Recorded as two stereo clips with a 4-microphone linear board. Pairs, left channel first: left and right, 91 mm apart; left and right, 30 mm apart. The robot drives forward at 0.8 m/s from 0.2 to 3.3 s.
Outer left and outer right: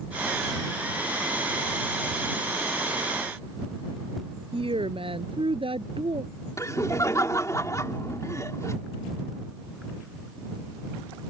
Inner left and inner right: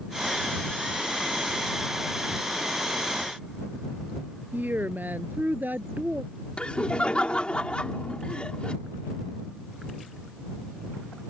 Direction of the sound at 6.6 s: 35° left (ahead or behind).